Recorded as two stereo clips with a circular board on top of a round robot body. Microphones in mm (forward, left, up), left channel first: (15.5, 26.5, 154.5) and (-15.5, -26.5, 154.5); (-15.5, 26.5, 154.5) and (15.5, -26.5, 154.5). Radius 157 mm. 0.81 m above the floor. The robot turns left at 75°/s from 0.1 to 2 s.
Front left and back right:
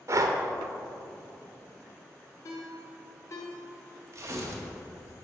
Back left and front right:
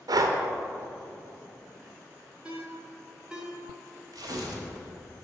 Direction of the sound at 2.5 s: 15° left.